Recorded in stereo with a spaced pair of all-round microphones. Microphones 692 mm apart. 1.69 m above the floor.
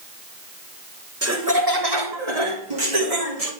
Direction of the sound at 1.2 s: 20° right (ahead or behind).